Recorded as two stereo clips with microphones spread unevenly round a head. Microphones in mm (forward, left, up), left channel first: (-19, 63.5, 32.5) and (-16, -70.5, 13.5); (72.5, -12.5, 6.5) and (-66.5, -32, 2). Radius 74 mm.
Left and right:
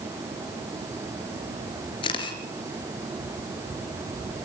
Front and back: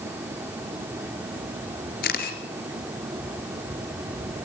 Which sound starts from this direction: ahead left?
A camera shutter, at 2.0 s.